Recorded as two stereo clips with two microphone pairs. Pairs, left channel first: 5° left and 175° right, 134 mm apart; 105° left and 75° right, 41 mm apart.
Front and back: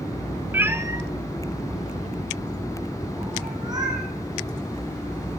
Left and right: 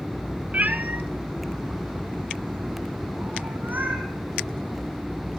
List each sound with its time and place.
0.5 s a cat meowing: 105° right, 0.7 m; by 4.0 s 120° right, 3 m